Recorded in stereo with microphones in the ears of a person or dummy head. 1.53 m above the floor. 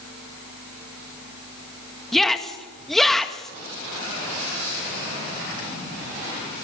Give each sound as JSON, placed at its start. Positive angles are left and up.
{"t": 2.1, "sound": "a shout", "side_deg": 5, "distance_m": 1.8}